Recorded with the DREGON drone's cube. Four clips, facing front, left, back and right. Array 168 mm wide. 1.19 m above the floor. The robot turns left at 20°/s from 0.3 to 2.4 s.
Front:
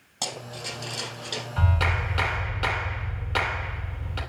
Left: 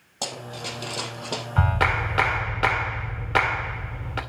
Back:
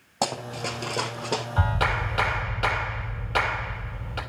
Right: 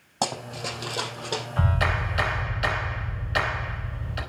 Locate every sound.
0.2 s running footsteps: 150° right, 1.8 m; by 1.4 s 155° left, 2 m
1.6 s a clap: 105° left, 2.5 m; by 4.2 s 90° left, 2.5 m